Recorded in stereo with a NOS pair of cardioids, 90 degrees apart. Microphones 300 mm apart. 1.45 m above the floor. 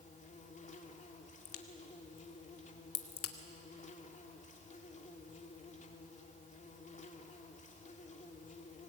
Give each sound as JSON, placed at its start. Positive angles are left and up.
{"t": 0.0, "sound": "an insect", "azimuth_deg": 25, "distance_m": 3.0}
{"t": 1.4, "sound": "a crack", "azimuth_deg": 50, "distance_m": 2.0}